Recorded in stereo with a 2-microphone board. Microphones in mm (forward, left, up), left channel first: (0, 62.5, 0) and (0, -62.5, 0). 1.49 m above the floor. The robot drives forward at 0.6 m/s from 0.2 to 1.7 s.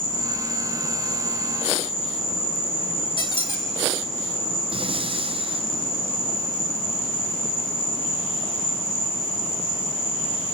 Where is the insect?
45° left (ahead or behind), 5.5 m; by 10.6 s 50° left (ahead or behind), 5 m.